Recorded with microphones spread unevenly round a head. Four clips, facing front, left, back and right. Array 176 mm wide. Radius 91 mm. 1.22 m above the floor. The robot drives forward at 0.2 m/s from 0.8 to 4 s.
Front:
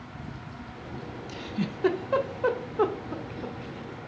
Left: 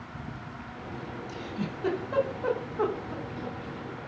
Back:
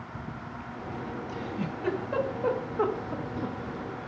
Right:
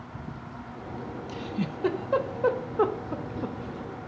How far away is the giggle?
About 0.7 m.